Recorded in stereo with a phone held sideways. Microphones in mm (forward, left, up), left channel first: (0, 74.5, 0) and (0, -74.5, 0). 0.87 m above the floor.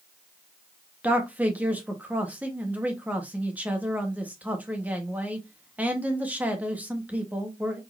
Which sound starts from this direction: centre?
A man speaking, at 1.0 s.